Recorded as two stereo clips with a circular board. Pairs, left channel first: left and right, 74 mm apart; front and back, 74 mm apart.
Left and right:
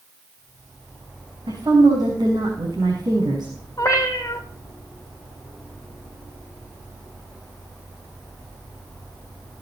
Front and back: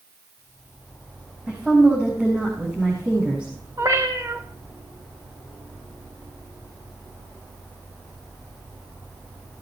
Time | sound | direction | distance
1.5 | a woman speaking | 105° right | 5.5 m
3.8 | a cat meowing | 135° left | 3 m